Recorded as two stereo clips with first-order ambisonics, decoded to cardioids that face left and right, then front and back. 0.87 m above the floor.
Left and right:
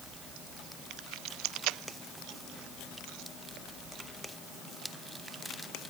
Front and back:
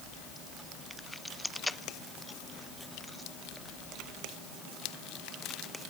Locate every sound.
Only background noise.